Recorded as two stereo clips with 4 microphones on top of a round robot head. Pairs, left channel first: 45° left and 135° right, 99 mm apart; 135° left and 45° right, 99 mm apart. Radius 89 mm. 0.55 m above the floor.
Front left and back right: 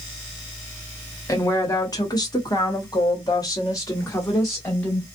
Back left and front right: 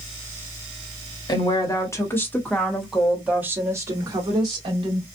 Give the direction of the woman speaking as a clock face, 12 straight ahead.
9 o'clock.